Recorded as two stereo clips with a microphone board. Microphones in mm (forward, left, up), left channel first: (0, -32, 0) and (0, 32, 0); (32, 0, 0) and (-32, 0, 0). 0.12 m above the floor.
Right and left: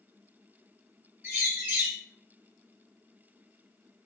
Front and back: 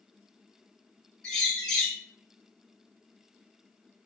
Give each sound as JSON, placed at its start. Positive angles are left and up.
{"t": 1.2, "sound": "a bird", "azimuth_deg": 65, "distance_m": 1.3}